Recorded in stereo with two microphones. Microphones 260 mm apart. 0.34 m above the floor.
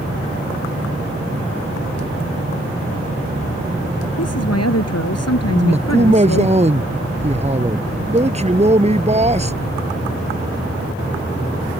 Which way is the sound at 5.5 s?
25° right (ahead or behind).